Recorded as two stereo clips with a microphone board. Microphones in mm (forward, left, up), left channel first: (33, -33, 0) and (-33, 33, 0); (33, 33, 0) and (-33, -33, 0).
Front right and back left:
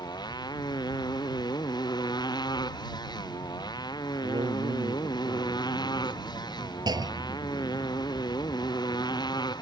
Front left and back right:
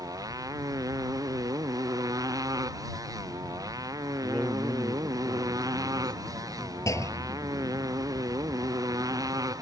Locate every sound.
0.0 s a motorcycle: 85° right
4.2 s a man speaking: 125° left
6.9 s a clunk: 100° left